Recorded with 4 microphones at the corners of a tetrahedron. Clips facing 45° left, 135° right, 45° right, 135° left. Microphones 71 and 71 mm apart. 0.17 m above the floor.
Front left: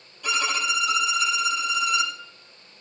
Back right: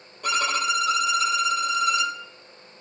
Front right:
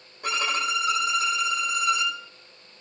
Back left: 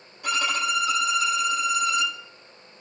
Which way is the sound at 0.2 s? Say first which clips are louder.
Back right 2 dB, back left 1 dB; 90° right.